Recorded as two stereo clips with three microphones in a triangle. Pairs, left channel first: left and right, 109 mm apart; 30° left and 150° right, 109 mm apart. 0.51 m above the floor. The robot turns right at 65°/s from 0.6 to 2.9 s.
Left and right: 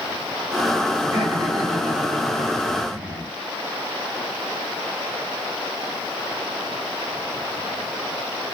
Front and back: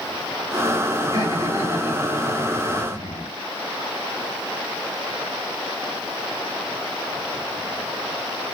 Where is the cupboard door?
No cupboard door in this recording.